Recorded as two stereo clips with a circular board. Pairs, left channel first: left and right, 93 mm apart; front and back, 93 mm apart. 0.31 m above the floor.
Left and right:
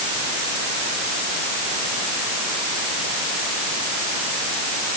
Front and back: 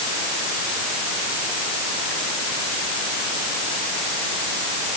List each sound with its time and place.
Only background noise.